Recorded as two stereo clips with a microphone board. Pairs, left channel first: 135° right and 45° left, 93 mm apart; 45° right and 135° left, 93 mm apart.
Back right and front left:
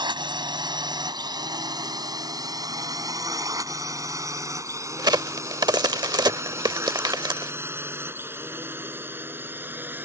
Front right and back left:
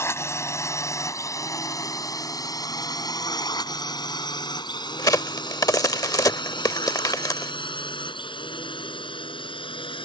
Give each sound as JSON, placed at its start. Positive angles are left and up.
{"t": 0.0, "sound": "a drone", "azimuth_deg": 15}
{"t": 5.0, "sound": "a crack", "azimuth_deg": 5}